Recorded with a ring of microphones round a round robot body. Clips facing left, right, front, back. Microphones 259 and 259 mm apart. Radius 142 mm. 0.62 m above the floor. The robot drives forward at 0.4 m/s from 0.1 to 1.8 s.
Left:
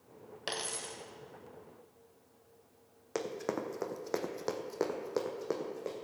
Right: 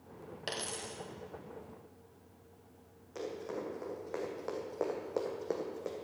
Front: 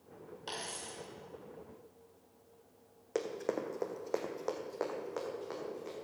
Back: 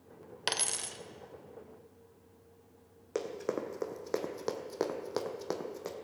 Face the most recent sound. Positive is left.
turn(degrees=-175)